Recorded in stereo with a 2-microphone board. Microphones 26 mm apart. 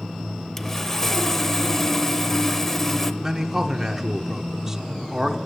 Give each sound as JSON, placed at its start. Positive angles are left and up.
{"t": 0.6, "sound": "sawing", "side_deg": 20, "distance_m": 0.6}
{"t": 3.2, "sound": "a man speaking", "side_deg": -20, "distance_m": 0.9}